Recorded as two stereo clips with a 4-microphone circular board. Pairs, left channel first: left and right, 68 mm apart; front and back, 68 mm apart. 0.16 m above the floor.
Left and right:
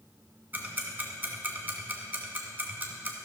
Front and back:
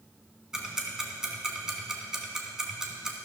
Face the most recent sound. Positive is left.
turn(degrees=-110)